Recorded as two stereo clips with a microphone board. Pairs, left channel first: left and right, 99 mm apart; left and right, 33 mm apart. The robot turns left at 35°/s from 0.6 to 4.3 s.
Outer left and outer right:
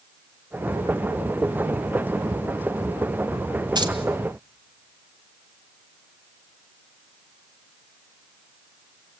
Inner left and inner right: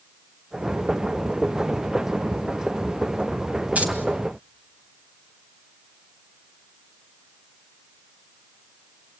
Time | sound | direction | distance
3.8 | keys jangling | 45° right (ahead or behind) | 1.7 m